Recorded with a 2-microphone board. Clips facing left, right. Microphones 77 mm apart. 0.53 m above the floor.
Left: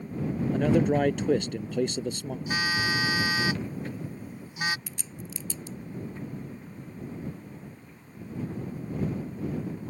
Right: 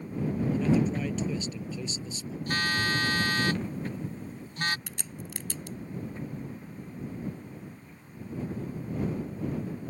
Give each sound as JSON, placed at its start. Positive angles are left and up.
{"t": 0.5, "sound": "a man speaking", "side_deg": 60}
{"t": 2.5, "sound": "a phone buzzing", "side_deg": 10}
{"t": 4.9, "sound": "a crack", "side_deg": -60}